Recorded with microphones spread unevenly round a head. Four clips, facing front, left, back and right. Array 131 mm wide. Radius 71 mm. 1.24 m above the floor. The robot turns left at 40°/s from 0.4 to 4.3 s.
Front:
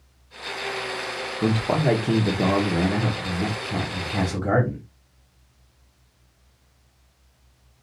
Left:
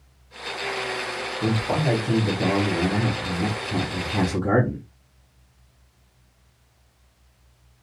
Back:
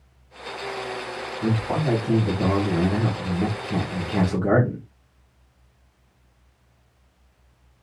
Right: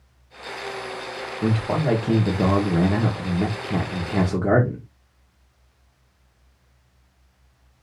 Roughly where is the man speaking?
Ahead.